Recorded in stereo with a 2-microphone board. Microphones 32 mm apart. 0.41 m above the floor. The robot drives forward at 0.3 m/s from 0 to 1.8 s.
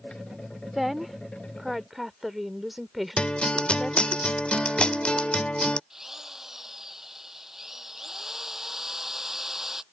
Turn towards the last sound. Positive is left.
turn(degrees=-10)  # may be behind; listen again after turning